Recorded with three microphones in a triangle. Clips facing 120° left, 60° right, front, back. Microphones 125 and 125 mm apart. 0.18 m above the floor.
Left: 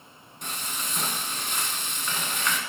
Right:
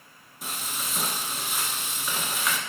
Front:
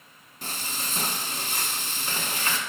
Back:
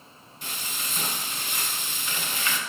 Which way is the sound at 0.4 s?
25° left.